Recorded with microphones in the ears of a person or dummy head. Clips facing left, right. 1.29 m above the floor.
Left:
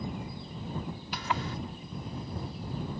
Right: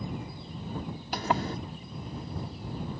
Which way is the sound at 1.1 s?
35° right (ahead or behind).